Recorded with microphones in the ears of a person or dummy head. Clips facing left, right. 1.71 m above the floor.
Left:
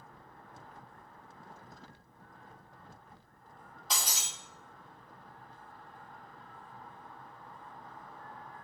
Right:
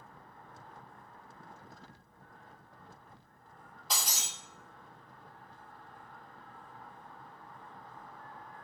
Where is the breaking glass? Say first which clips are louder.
Even; centre (ahead or behind), 1.1 m.